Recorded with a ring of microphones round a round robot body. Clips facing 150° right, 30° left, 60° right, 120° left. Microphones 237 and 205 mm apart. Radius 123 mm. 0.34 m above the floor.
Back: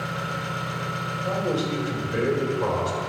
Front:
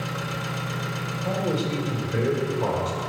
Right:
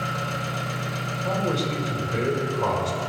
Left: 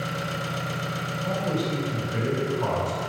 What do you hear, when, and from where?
0.0 s an engine running: 50° left, 1.1 m
1.2 s a man speaking: 55° right, 1.8 m